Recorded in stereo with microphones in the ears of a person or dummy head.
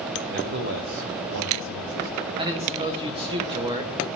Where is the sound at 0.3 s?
45° right (ahead or behind), 1.2 m; by 2.3 s 75° right (ahead or behind), 1.2 m.